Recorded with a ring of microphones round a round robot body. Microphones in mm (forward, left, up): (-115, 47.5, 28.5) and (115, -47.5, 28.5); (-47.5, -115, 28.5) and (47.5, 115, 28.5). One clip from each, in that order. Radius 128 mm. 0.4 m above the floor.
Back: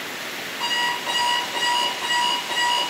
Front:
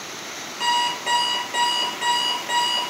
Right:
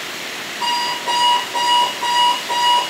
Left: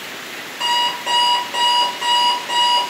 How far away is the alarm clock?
About 4 m.